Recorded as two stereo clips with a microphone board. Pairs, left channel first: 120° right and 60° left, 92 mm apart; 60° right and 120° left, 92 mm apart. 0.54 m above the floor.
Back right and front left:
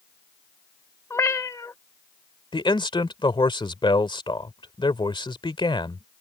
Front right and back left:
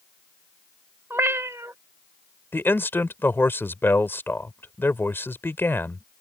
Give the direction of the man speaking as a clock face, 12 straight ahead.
4 o'clock.